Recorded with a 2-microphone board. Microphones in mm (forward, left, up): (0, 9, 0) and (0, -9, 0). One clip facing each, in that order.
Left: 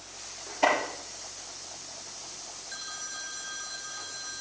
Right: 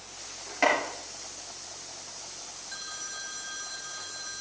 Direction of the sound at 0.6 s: 80° right.